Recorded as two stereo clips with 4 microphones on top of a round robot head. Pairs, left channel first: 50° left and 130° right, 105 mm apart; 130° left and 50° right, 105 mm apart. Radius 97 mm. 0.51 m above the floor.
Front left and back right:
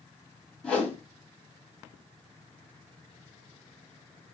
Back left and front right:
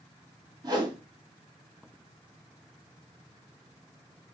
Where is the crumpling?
I don't hear crumpling.